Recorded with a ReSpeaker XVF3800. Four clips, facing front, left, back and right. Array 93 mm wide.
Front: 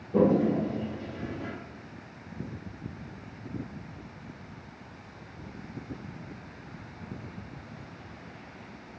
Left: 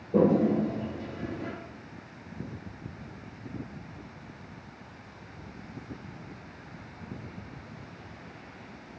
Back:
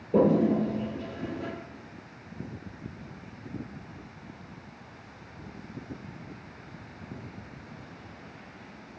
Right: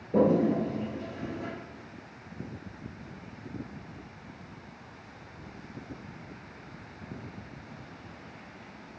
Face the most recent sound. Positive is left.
turn(degrees=-175)